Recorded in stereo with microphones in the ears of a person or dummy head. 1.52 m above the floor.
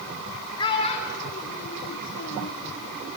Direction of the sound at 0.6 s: 25° left (ahead or behind).